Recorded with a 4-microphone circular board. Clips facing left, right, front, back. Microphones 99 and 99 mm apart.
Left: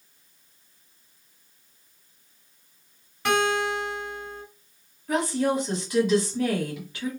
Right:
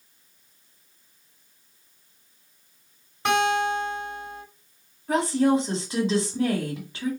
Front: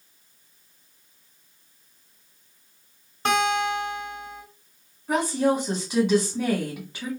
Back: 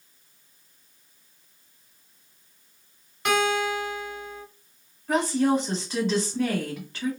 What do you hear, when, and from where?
3.2 s a guitar: 35° right, 1.4 m
5.1 s a woman speaking: 65° right, 1.2 m